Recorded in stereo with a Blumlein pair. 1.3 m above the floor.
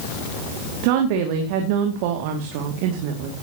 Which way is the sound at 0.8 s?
45° right.